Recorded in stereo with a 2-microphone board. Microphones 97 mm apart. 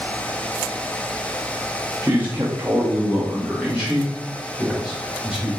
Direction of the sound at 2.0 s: 15° right (ahead or behind).